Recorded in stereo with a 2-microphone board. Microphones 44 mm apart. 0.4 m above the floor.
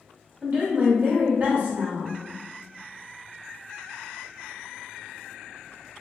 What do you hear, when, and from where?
0.4 s a woman speaking: 35° right (ahead or behind), 1.0 m